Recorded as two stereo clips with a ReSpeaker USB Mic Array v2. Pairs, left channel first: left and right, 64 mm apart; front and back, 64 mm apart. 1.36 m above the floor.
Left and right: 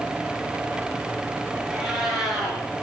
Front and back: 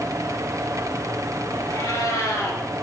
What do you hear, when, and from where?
1.7 s a cat meowing: 5° right, 4.5 m